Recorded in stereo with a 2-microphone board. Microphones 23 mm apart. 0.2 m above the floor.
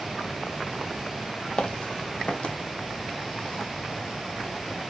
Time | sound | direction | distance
1.6 | footsteps | 60° left (ahead or behind) | 0.6 m